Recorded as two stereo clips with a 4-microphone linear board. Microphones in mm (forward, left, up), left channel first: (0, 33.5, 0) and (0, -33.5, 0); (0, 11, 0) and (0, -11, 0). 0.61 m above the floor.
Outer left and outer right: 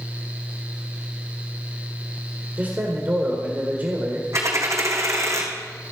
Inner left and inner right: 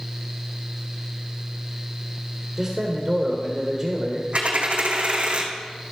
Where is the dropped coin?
55° right (ahead or behind), 2 m.